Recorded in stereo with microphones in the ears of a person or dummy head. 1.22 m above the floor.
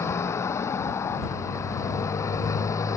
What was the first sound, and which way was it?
A motorcycle, 15° left (ahead or behind).